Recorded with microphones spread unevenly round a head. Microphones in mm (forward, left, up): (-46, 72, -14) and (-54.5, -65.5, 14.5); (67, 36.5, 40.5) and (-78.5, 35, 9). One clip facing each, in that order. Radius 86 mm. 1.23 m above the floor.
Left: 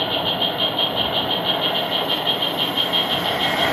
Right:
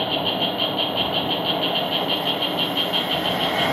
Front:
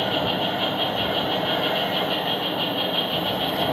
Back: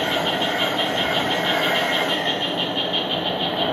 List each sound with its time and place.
0.0 s an insect: 120° right, 0.8 m